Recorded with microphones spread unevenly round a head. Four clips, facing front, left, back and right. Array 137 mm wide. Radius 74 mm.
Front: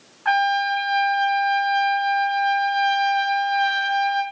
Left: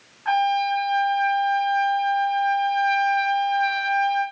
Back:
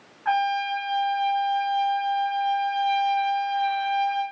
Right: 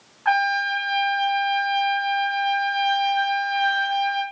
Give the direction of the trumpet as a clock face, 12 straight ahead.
1 o'clock.